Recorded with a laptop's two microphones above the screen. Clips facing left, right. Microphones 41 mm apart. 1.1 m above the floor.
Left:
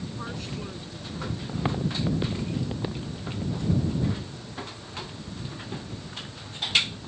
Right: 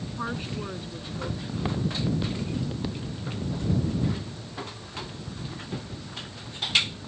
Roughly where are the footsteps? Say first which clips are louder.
Left 2 dB; centre.